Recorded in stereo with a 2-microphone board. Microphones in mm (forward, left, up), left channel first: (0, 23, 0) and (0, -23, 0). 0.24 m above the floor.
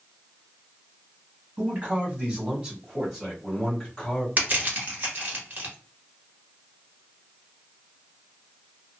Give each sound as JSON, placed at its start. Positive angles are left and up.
{"t": 1.6, "sound": "a man speaking", "side_deg": -40, "distance_m": 2.0}
{"t": 4.4, "sound": "crushing", "side_deg": -45, "distance_m": 1.2}